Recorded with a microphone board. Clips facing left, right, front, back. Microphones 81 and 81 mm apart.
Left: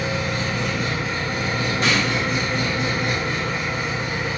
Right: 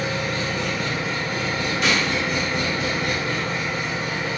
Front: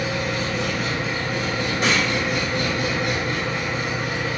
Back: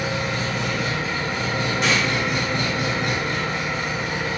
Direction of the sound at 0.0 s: 155° left.